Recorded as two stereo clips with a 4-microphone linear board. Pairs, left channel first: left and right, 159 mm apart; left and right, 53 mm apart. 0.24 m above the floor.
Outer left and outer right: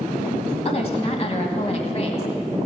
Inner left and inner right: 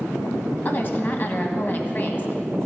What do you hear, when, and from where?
0.7 s a woman speaking: 45° left (ahead or behind), 1.4 m